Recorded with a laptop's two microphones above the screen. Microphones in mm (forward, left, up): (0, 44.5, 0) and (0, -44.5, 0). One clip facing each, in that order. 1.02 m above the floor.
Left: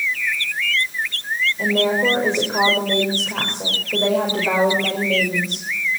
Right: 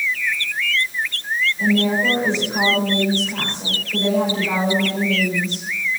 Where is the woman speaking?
50° left (ahead or behind), 5.5 m.